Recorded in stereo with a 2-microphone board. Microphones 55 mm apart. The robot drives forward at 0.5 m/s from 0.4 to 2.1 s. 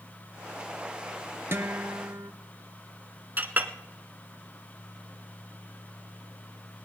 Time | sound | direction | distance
1.5 | a guitar | 45° right (ahead or behind) | 1.2 m
3.4 | a clink | 35° right (ahead or behind) | 1.3 m